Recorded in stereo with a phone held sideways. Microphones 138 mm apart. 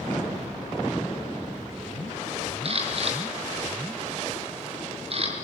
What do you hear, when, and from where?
2.6 s a camera shutter: 45° right (ahead or behind), 5.5 m